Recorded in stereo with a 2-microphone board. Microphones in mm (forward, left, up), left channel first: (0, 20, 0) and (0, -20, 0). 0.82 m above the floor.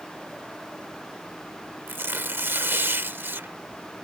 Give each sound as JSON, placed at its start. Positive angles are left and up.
{"t": 1.9, "sound": "tearing paper", "side_deg": -65}